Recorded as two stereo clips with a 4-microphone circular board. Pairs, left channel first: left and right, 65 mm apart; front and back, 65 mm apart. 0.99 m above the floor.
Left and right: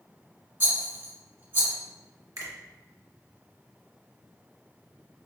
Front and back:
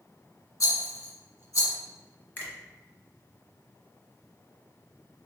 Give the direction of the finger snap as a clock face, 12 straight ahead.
2 o'clock.